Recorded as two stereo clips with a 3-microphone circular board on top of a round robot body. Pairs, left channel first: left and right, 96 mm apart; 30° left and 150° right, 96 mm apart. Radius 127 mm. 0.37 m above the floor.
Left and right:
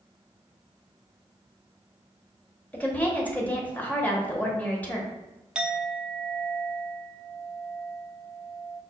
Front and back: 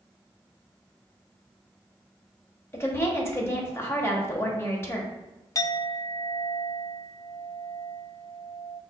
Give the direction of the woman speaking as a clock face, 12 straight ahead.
11 o'clock.